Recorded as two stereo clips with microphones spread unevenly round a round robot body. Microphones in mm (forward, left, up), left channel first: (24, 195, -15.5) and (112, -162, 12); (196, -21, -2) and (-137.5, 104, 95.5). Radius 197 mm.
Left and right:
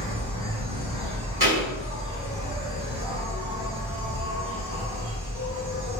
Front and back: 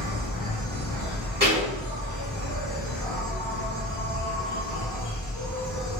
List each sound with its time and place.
0.0 s an insect: 135° right, 0.9 m
1.4 s a thud: 130° right, 1.6 m